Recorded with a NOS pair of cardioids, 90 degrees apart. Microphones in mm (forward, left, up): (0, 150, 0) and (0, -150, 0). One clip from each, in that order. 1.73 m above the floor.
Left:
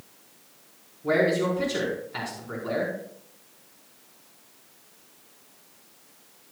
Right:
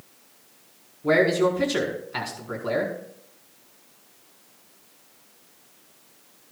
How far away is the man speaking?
About 4.5 m.